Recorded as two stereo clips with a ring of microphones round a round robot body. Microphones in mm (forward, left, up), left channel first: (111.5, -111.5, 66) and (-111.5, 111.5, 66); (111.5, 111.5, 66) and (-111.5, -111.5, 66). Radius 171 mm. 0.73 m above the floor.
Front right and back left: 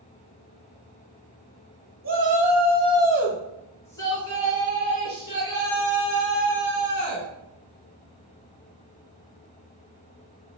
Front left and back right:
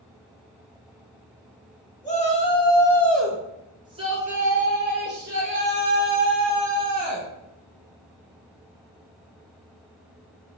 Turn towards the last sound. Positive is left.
turn(degrees=-95)